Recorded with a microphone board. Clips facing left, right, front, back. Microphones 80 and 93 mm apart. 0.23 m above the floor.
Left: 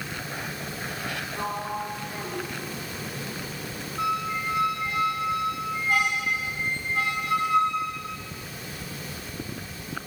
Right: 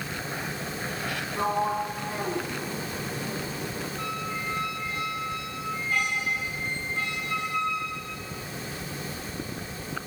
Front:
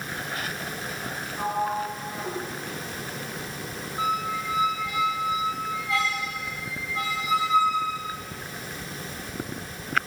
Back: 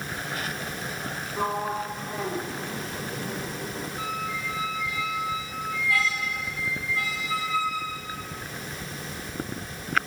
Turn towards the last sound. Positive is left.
turn(degrees=70)